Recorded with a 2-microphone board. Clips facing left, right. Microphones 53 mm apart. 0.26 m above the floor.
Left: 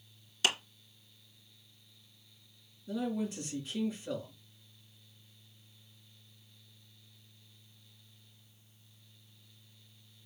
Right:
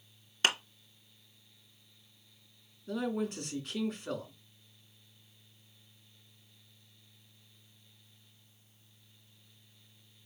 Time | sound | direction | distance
0.4 | a clap | 40° right (ahead or behind) | 2 m
2.9 | a man speaking | 60° right (ahead or behind) | 3 m